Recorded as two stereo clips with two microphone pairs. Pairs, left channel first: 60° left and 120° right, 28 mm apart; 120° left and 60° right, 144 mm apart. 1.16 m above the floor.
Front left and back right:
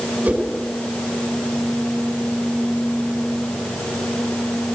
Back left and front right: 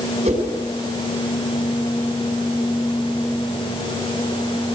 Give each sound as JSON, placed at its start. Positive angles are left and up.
{"t": 0.2, "sound": "a whoosh", "azimuth_deg": -90, "distance_m": 5.0}